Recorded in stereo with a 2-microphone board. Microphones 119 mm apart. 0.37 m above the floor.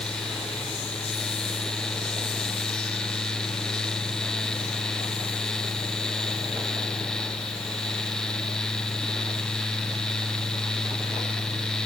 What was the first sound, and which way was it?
Only background noise.